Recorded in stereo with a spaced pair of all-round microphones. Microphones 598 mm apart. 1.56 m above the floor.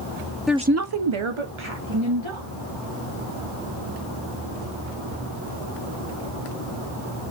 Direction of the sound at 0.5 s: Centre (ahead or behind).